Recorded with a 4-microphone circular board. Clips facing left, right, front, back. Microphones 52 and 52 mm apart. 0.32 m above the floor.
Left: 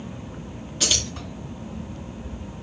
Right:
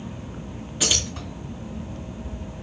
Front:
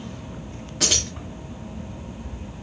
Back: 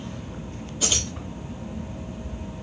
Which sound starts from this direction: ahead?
Keys jangling, at 0.8 s.